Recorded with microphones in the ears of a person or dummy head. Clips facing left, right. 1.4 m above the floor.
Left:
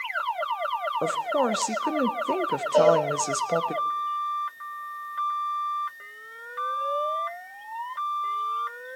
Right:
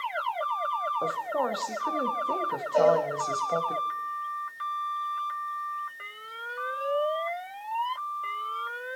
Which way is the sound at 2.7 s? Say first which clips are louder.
Left 3 dB; 60° left (ahead or behind).